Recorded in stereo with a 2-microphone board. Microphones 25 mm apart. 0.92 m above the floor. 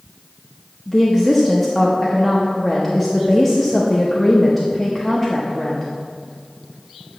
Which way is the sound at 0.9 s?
5° left (ahead or behind).